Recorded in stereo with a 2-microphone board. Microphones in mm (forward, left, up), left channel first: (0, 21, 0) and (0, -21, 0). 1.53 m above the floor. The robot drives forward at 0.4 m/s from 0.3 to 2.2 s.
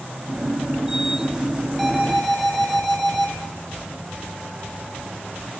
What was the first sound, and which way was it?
An alarm, 5° left (ahead or behind).